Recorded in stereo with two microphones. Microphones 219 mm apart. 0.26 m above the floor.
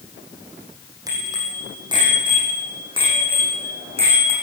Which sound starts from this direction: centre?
A bicycle bell, at 1.1 s.